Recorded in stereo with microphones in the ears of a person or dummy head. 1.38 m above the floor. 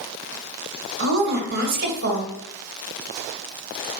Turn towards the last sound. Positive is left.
turn(degrees=-60)  # may be behind; listen again after turning